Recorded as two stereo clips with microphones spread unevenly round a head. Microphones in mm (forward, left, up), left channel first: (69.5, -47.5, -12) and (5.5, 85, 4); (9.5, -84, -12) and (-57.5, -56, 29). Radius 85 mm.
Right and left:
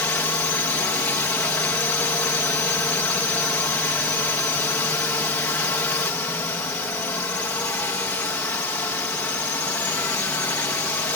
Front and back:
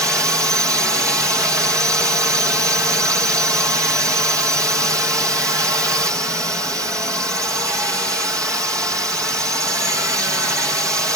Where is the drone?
135° right.